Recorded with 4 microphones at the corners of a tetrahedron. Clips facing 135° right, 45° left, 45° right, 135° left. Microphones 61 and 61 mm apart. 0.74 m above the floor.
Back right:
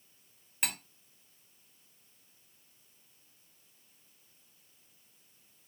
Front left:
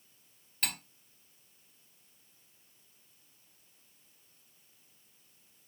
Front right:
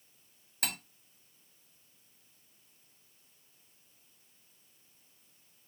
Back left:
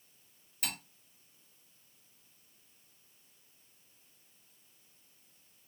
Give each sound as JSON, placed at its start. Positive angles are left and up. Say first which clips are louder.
{"t": 0.6, "sound": "cutlery clinking", "louder": "even, front right 2 dB", "azimuth_deg": -65, "distance_m": 0.8}